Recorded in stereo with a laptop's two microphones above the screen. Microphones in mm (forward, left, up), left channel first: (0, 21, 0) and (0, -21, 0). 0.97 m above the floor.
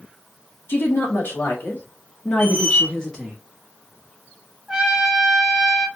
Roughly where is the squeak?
Left.